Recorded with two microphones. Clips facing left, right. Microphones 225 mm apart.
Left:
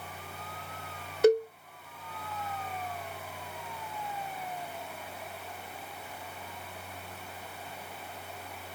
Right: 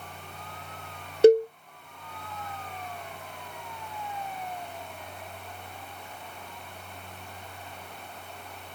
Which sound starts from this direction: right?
A cowbell, at 1.2 s.